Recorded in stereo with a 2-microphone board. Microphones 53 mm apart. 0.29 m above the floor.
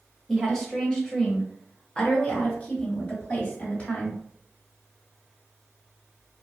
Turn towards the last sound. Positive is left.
turn(degrees=35)  # may be behind; listen again after turning